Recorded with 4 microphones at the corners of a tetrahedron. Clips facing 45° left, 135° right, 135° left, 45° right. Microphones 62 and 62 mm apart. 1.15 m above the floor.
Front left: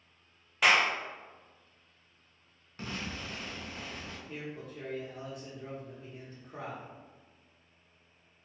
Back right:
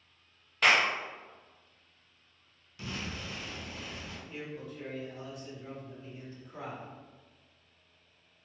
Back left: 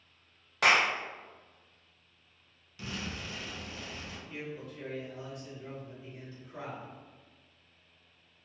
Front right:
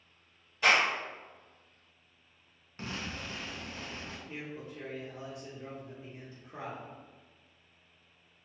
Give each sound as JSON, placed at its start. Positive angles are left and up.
{"t": 0.6, "sound": "a clap", "azimuth_deg": 130, "distance_m": 0.6}
{"t": 2.8, "sound": "an explosion", "azimuth_deg": 0, "distance_m": 0.6}
{"t": 4.3, "sound": "a man speaking", "azimuth_deg": 10, "distance_m": 0.9}